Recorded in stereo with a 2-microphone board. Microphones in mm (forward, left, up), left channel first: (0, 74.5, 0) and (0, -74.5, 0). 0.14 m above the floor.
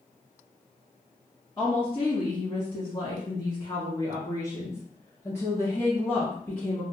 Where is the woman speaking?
35° left (ahead or behind), 1.3 m; by 6.8 s 10° left (ahead or behind), 3 m.